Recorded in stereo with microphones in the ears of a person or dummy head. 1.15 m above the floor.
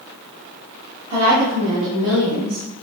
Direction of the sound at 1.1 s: 60° right (ahead or behind).